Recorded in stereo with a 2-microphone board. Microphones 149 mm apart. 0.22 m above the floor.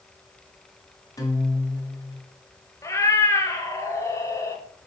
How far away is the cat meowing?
About 1.0 m.